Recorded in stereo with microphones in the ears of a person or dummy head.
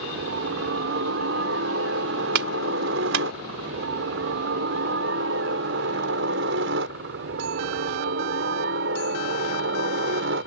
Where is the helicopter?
65° right (ahead or behind); by 10.5 s 60° right (ahead or behind).